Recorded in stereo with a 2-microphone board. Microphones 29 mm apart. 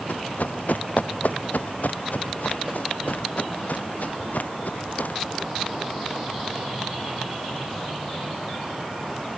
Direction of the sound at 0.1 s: 75° left (ahead or behind).